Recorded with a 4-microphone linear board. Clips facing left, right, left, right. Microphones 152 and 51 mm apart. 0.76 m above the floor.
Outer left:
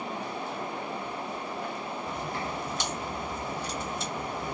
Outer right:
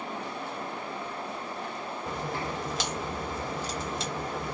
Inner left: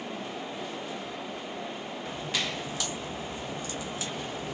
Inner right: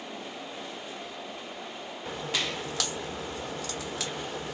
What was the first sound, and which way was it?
A crack, 85° right.